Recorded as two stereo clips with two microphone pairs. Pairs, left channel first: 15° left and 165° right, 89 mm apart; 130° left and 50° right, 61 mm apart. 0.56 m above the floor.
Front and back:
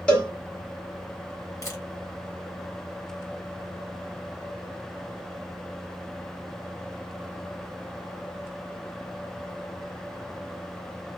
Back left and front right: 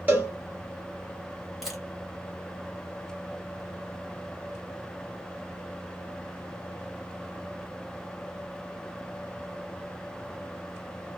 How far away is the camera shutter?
About 1.1 m.